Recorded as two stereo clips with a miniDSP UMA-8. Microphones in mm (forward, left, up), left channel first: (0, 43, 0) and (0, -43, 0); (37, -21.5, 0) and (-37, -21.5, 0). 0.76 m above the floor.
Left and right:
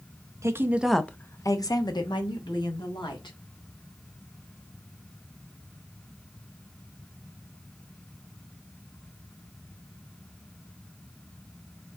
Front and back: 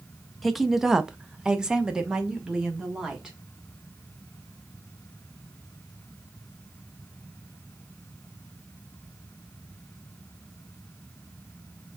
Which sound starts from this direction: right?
A woman speaking, at 0.4 s.